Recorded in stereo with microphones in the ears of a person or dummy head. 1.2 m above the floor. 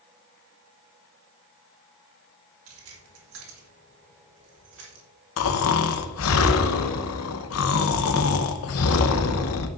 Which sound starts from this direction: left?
Snoring, at 5.4 s.